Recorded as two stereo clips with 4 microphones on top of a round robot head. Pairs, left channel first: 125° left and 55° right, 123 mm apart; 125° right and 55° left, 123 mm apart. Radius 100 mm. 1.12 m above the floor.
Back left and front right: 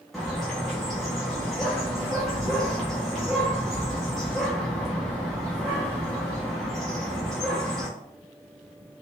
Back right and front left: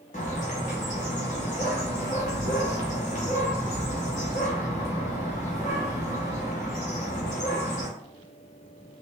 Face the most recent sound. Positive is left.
turn(degrees=-145)